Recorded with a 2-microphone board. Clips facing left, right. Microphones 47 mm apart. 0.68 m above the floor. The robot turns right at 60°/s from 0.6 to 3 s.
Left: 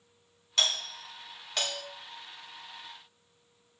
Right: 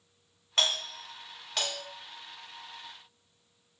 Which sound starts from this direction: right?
A doorbell, at 0.6 s.